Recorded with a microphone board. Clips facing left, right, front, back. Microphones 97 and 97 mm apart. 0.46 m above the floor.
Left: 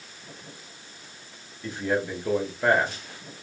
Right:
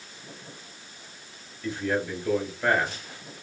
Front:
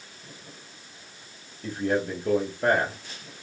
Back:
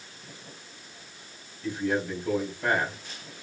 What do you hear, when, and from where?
1.6 s a man speaking: 25° left, 1.9 m